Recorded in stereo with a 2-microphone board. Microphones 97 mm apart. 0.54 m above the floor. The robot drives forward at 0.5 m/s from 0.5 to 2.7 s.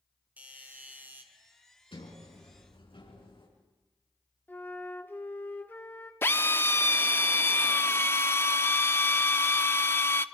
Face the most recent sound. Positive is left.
turn(degrees=25)  # may be behind; listen again after turning